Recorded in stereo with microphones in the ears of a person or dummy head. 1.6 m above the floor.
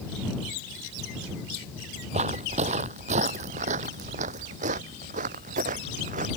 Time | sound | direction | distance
2.1 | footsteps | 35° right (ahead or behind) | ?